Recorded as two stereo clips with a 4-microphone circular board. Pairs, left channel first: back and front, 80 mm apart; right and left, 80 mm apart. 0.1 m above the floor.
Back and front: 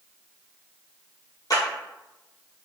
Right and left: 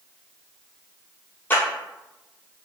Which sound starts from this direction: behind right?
A clap, at 1.5 s.